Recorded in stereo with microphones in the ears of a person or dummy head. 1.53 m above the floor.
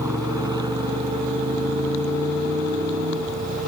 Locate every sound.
0.0 s a motorcycle: 10° right (ahead or behind); by 3.7 s 35° right (ahead or behind)